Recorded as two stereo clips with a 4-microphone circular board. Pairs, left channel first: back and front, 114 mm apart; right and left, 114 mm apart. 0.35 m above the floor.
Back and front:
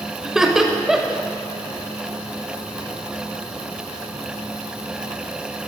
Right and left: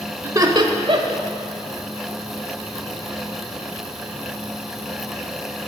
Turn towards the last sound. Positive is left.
turn(degrees=85)